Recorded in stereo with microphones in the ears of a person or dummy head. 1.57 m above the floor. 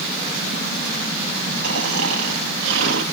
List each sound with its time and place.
1.6 s snoring: 65° right (ahead or behind), 2 m